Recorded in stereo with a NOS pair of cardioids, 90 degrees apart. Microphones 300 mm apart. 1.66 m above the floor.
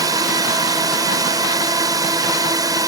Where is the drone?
15° right.